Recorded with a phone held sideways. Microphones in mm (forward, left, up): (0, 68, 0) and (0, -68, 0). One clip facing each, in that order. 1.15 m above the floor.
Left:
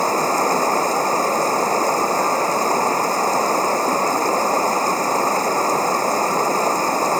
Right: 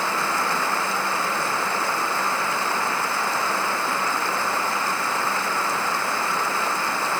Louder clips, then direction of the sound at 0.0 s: Left 7 dB; 40° left (ahead or behind).